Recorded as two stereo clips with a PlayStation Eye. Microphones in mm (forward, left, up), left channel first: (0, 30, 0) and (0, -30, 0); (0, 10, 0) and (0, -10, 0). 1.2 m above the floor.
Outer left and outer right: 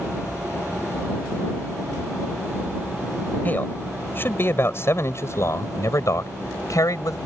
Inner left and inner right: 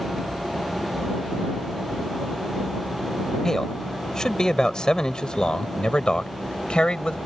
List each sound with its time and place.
3.5 s a man speaking: 30° left (ahead or behind); by 7.2 s 70° left (ahead or behind)